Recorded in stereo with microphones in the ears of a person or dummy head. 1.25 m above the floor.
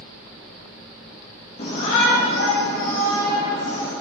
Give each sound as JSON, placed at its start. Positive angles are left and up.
{"t": 1.6, "sound": "a shout", "side_deg": 40, "distance_m": 1.7}